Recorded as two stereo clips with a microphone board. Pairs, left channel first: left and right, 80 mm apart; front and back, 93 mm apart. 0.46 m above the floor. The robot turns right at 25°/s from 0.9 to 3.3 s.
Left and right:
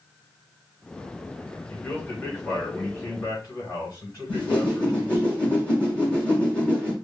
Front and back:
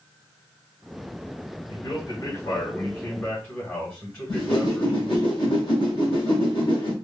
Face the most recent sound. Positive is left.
turn(degrees=15)